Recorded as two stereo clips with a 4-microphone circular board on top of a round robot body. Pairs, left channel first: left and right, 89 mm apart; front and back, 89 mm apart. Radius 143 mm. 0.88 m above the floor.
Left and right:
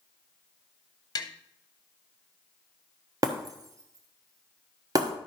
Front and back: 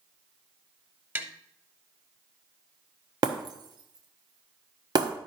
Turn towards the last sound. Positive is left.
turn(degrees=-140)